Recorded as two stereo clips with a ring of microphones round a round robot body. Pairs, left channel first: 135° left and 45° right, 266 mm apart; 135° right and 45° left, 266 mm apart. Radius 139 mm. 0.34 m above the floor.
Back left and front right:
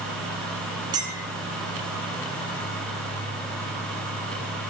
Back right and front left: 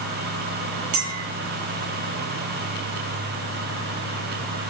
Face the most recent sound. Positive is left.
turn(degrees=30)